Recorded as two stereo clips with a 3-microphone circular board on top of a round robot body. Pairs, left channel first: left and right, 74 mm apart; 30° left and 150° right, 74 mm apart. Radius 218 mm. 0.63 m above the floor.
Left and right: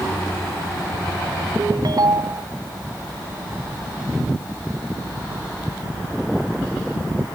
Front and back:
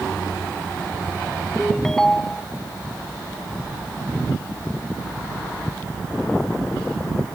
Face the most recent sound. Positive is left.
turn(degrees=-55)